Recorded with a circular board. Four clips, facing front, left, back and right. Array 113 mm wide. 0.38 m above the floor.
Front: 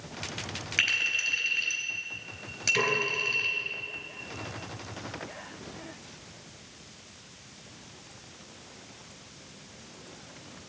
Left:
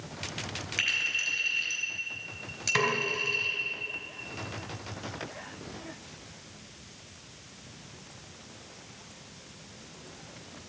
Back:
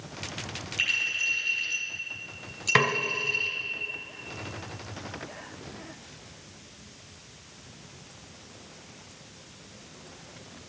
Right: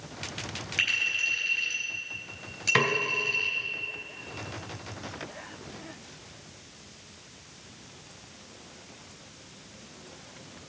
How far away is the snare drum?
About 1.6 m.